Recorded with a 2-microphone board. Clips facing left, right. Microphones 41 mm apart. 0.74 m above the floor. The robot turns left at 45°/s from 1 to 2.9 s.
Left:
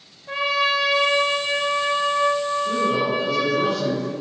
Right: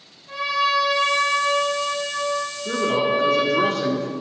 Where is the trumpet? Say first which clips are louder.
Even; 45° left, 2.5 m; by 3.6 s 40° right, 2.5 m.